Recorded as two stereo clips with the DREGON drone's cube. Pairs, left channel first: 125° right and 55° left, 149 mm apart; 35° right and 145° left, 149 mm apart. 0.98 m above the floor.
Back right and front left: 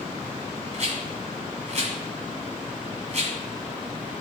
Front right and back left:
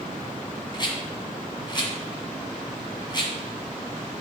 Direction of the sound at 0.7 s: 20° left.